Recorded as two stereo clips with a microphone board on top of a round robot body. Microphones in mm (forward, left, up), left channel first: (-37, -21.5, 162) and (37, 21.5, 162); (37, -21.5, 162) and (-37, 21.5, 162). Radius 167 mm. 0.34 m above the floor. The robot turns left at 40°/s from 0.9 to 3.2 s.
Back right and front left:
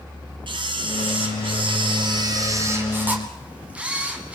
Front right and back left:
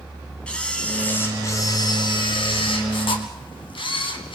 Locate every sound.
0.5 s a camera shutter: 45° left, 2.5 m; by 4.4 s 45° right, 2.5 m